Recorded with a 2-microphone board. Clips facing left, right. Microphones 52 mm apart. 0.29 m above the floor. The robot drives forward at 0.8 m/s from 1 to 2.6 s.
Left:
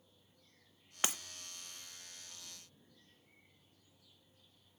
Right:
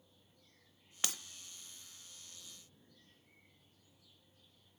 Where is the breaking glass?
25° left (ahead or behind), 0.7 m.